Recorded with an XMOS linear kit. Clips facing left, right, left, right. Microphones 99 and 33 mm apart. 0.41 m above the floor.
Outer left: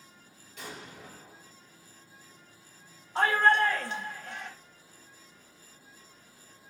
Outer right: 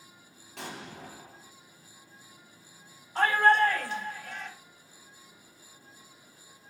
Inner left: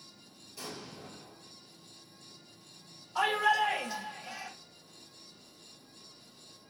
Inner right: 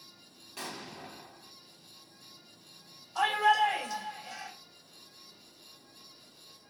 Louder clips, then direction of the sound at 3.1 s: Outer right 1 dB, inner right 2 dB; 20° left (ahead or behind).